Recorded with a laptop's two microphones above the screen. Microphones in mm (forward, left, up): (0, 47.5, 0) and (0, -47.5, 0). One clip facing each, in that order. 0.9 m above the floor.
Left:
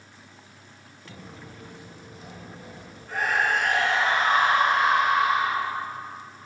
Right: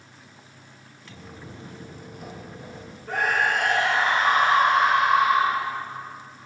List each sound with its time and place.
1.1 s footsteps: 20° left (ahead or behind), 0.9 m; by 3.0 s 70° right (ahead or behind), 2.5 m
3.1 s a scream: 75° right (ahead or behind), 2.5 m